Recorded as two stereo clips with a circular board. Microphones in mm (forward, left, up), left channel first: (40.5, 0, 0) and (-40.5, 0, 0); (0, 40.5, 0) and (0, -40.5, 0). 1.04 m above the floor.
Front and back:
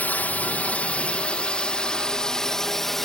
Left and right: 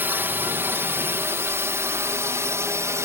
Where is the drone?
50° right; by 3.0 s 85° right.